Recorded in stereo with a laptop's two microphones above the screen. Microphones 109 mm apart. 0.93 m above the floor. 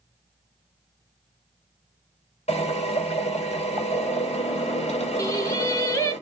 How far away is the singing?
About 2 m.